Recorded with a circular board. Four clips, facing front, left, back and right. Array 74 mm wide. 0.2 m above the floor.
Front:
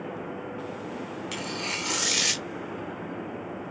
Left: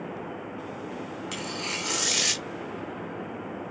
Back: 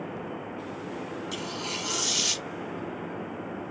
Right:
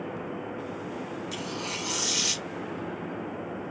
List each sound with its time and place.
1.3 s tearing paper: 35° left, 0.7 m